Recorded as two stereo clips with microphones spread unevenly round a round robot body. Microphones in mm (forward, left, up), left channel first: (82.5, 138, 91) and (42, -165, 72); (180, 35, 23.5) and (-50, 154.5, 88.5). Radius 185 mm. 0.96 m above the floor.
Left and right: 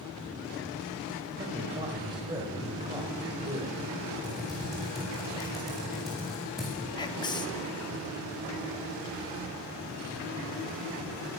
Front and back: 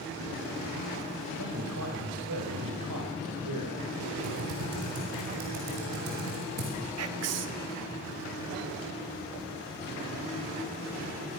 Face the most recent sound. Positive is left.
turn(degrees=160)